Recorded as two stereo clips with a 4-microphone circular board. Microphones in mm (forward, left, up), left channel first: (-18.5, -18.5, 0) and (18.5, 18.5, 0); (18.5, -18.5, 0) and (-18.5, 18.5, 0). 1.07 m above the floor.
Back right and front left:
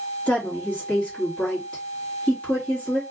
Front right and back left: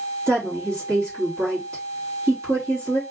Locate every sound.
0.3 s a woman speaking: 155° left, 1.9 m